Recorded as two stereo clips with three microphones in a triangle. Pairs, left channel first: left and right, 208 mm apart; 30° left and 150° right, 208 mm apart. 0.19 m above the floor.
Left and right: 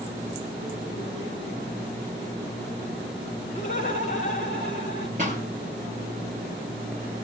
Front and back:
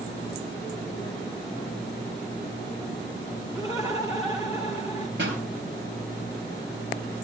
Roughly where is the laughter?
Behind left.